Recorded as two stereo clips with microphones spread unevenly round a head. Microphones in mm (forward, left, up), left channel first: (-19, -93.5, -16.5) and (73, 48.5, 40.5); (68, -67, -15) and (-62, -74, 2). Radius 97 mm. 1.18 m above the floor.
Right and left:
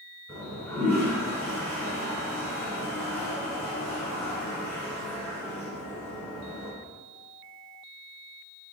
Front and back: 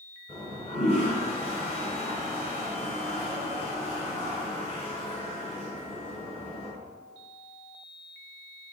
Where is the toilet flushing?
30° right, 1.6 m.